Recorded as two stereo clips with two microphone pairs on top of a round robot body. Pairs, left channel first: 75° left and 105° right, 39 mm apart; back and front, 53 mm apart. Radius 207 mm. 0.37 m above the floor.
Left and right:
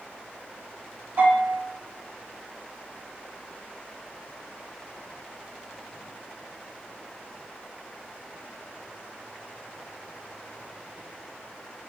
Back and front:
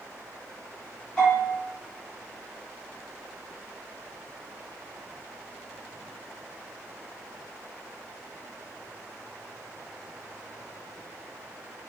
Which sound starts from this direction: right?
A bell, at 1.2 s.